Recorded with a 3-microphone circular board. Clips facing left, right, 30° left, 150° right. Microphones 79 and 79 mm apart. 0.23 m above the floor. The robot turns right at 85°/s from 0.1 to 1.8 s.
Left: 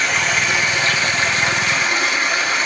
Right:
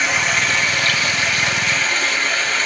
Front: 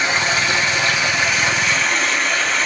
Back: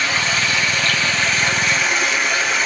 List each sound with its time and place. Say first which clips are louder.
0.0 s running water: even, front 2 dB; 5° right, 1.2 m; by 2.6 s 140° left, 1.2 m